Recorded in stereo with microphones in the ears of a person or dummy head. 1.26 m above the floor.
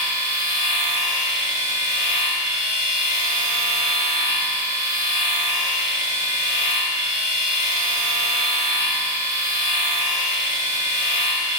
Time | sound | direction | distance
0.0 | a machine running | 35° left (ahead or behind) | 2.5 m